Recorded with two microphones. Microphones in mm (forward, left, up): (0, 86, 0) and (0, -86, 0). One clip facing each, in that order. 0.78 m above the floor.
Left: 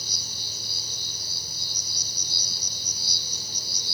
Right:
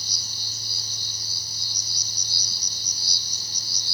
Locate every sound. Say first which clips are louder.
0.0 s an insect: left 2 dB; 55° left (ahead or behind), 2.5 m